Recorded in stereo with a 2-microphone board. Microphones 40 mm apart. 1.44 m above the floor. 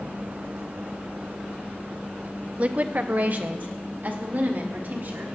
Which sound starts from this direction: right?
A woman speaking, at 2.6 s.